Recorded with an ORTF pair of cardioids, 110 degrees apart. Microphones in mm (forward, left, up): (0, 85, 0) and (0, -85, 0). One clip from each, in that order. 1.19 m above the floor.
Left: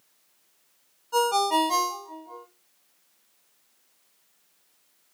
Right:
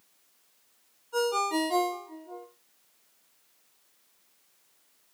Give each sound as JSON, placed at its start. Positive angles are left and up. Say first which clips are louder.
{"t": 1.1, "sound": "a ringtone", "louder": "left 5 dB", "azimuth_deg": 60, "distance_m": 0.8}